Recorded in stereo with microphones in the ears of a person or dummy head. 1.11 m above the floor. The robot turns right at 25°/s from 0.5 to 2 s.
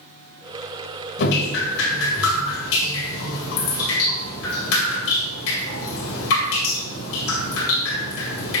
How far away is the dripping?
About 1.8 m.